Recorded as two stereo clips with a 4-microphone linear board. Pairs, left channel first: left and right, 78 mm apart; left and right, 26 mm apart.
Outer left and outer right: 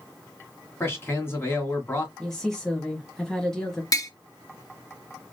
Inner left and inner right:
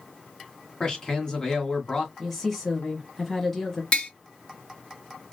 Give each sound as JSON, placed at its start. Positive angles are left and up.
{"t": 0.8, "sound": "a man speaking", "side_deg": 30, "distance_m": 1.9}
{"t": 2.2, "sound": "a woman speaking", "side_deg": 5, "distance_m": 1.4}
{"t": 3.9, "sound": "tapping", "side_deg": 45, "distance_m": 1.1}